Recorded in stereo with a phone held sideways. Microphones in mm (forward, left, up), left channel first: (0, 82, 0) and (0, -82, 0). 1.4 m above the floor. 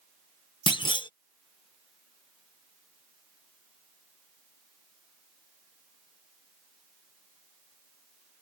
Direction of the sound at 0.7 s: 30° left (ahead or behind).